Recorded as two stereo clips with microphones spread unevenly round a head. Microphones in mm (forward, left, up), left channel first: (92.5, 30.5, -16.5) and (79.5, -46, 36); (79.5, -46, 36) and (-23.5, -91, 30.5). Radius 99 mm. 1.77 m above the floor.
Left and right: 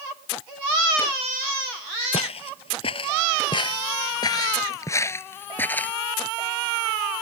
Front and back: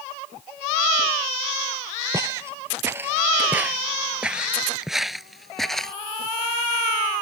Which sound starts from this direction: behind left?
Footsteps, at 2.1 s.